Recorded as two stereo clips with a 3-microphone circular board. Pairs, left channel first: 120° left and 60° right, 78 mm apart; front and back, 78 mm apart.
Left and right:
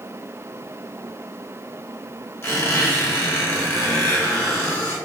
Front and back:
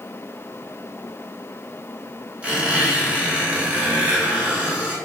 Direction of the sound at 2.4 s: 125° left.